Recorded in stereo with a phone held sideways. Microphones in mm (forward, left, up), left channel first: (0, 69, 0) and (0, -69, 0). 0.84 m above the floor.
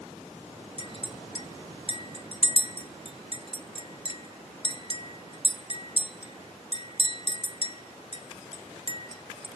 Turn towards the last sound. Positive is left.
turn(degrees=45)  # may be behind; listen again after turning